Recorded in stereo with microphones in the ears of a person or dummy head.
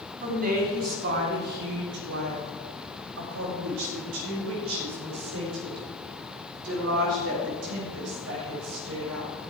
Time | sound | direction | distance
0.2 | a woman speaking | 40° right (ahead or behind) | 2.5 m